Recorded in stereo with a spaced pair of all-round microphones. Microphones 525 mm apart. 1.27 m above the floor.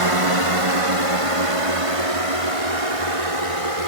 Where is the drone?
65° right (ahead or behind); by 3.9 s 80° right.